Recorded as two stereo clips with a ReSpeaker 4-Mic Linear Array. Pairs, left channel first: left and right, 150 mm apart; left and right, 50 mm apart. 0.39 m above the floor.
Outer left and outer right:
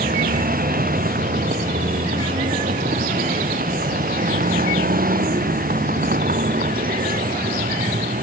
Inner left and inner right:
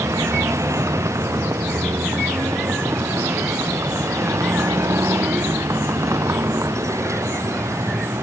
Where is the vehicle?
75° right (ahead or behind).